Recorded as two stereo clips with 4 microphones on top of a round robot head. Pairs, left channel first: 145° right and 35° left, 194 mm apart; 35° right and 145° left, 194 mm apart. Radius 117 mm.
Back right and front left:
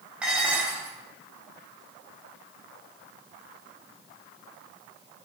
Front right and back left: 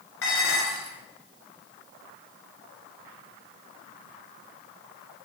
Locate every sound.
0.2 s dishes clattering: 50° right, 2.5 m